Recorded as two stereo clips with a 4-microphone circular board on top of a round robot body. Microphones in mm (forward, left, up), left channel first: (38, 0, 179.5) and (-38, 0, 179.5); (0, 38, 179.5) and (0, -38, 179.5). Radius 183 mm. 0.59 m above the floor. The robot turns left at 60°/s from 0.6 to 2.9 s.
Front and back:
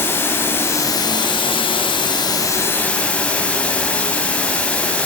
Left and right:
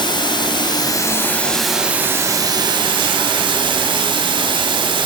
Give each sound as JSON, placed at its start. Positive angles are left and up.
{"t": 0.0, "sound": "running water", "azimuth_deg": 65, "distance_m": 3.5}